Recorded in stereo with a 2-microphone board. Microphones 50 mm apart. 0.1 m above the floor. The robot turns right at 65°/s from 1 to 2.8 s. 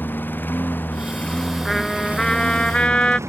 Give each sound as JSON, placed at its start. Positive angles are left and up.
{"t": 0.0, "sound": "a lawn mower", "azimuth_deg": 140}
{"t": 1.6, "sound": "a trumpet", "side_deg": 0}